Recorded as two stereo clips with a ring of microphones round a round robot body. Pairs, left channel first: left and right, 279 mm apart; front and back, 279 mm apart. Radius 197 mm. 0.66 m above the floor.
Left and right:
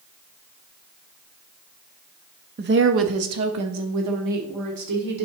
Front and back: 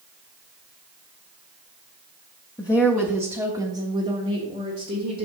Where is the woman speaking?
65° right, 0.6 m; by 5.2 s 110° right, 1.6 m.